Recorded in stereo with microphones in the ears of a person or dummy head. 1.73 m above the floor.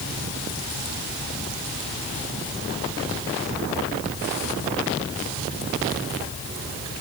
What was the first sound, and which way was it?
Only background noise.